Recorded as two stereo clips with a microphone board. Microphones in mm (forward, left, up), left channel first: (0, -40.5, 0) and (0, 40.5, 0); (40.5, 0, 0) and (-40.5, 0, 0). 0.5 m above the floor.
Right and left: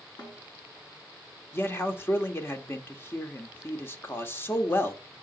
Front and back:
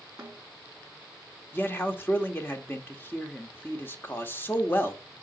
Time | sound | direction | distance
0.2 | a snare drum | 95° right | 6 m
1.5 | a man speaking | 45° right | 1.4 m